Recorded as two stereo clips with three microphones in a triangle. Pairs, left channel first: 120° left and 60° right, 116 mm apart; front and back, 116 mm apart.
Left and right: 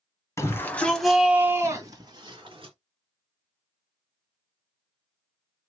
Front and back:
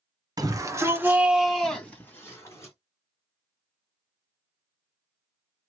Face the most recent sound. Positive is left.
turn(degrees=-55)